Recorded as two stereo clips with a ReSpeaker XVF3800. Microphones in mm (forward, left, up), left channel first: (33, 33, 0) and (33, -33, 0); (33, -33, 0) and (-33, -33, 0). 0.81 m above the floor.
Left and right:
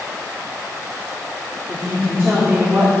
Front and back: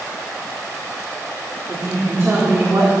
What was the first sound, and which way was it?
A woman speaking, 140° right.